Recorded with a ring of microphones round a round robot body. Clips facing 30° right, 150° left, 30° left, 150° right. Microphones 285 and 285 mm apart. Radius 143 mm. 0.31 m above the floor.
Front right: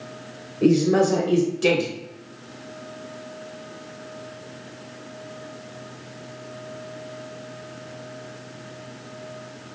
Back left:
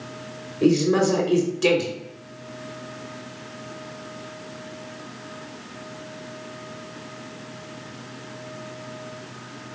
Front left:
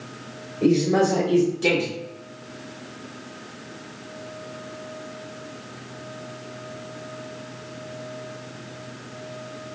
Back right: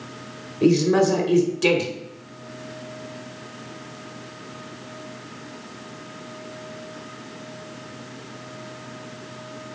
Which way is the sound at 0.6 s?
140° right.